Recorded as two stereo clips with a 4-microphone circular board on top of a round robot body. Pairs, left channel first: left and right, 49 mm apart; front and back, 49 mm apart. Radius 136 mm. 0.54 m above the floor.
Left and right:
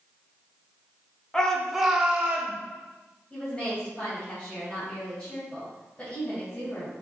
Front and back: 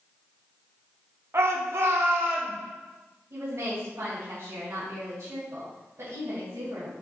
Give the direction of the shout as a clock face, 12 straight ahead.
7 o'clock.